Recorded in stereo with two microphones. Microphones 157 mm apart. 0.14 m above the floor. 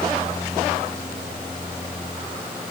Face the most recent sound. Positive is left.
No sound to turn to.